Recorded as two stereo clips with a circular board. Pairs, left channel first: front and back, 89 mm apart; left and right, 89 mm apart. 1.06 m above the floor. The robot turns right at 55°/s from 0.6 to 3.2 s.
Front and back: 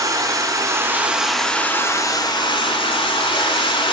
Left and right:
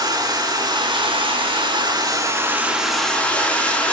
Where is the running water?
130° right, 4.5 m; by 3.9 s 15° left, 4.5 m.